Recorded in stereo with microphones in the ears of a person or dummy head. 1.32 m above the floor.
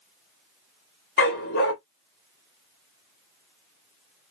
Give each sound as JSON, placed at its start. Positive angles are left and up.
{"t": 1.2, "sound": "a dog barking", "side_deg": 55, "distance_m": 1.4}